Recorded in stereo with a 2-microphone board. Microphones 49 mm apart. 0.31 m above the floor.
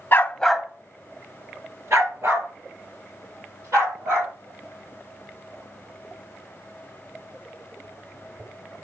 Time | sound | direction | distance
0.1 | a dog barking | 45° left (ahead or behind) | 0.8 m